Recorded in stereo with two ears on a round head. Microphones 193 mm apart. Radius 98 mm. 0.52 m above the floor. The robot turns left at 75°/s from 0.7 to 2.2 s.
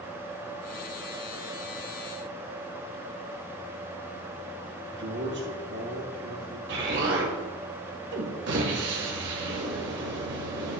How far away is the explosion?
About 1.9 m.